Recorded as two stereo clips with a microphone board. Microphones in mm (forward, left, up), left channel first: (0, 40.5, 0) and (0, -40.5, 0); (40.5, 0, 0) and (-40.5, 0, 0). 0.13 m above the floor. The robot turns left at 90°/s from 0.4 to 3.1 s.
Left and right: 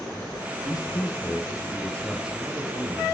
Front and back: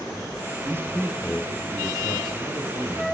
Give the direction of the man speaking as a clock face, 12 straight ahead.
8 o'clock.